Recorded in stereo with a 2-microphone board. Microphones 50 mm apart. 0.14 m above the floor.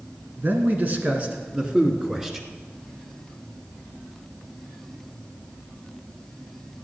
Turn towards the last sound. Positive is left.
turn(degrees=-10)  # may be behind; listen again after turning